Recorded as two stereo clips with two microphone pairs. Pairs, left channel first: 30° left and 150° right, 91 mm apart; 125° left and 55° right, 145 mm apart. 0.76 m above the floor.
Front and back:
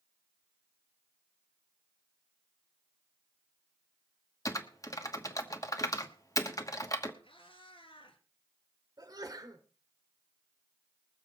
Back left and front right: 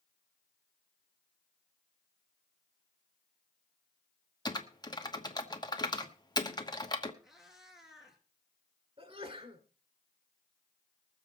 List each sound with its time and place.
4.5 s typing on a keyboard: 70° left, 1.2 m
7.2 s a cat meowing: 30° left, 3 m
9.0 s a sneeze: 105° right, 2.5 m